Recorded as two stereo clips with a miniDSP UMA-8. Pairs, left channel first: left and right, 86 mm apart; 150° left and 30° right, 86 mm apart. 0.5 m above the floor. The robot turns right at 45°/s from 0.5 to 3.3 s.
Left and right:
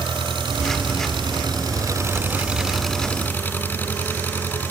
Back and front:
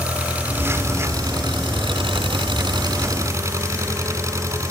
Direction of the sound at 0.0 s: 105° right.